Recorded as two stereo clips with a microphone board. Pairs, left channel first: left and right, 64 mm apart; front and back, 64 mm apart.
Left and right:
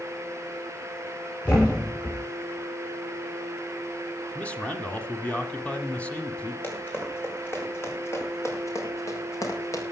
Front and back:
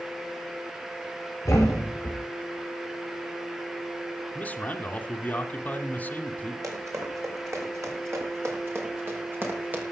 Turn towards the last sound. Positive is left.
turn(degrees=120)